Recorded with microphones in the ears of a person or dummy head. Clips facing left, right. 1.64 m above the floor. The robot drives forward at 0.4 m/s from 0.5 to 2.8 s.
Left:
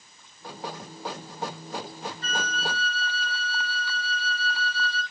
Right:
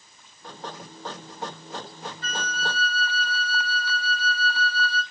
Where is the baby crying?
No baby crying in this recording.